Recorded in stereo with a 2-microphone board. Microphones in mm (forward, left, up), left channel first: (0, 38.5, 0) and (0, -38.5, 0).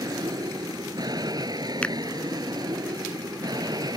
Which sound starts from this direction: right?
An aircraft, at 0.0 s.